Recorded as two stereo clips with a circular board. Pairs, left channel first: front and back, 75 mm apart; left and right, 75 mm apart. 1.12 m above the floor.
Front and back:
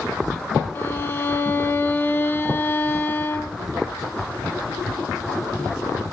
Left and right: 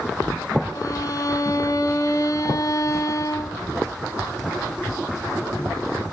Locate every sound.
0.8 s a violin: 50° left, 1.6 m